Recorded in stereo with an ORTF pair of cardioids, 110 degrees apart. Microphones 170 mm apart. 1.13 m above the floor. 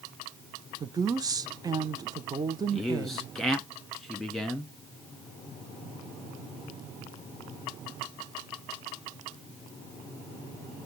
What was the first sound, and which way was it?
A woman speaking, 20° right.